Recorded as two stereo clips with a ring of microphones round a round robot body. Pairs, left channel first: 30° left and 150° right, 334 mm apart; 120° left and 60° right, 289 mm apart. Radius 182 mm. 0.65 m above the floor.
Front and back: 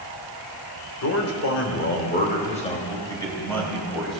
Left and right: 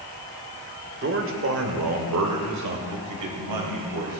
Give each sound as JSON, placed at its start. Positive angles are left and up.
{"t": 1.0, "sound": "a man speaking", "azimuth_deg": -10, "distance_m": 2.5}